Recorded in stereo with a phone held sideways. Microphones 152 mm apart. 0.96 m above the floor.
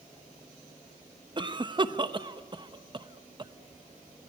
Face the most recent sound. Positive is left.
turn(degrees=-30)  # may be behind; listen again after turning